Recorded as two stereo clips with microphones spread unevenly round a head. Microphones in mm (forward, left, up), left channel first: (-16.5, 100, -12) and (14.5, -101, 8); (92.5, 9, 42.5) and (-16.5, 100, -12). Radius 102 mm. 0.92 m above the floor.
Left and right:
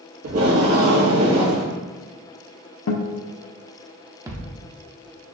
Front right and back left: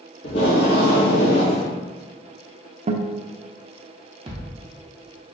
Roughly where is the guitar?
Left.